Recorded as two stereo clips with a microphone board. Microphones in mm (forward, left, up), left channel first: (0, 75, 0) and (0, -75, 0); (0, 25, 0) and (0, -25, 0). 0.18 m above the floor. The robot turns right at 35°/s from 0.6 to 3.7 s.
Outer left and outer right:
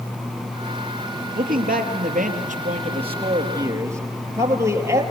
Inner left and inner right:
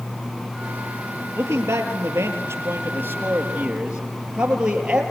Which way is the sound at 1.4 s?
100° right.